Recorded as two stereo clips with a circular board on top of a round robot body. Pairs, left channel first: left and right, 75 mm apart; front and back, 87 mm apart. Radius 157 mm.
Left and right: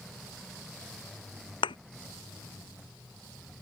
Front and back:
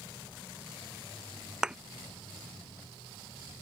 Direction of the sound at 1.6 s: 100° left.